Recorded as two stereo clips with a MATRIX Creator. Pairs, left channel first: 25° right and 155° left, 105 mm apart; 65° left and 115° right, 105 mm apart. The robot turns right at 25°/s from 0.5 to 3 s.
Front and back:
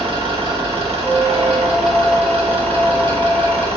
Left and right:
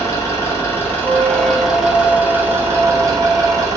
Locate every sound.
0.0 s an engine running: 125° left, 2.5 m; by 3.8 s 170° right, 2.5 m
1.0 s a squeak: 100° left, 2.5 m; by 3.7 s 145° left, 2.5 m